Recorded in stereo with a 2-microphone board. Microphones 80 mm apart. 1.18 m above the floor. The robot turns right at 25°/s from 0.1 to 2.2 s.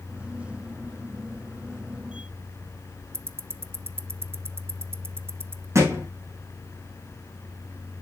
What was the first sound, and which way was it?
Ticking, 30° right (ahead or behind).